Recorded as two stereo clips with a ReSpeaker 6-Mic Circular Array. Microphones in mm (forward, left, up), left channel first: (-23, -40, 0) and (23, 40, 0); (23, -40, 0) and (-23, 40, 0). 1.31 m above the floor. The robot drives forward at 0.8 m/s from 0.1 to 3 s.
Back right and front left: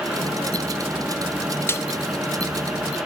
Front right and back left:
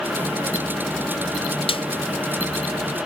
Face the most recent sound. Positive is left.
turn(degrees=-145)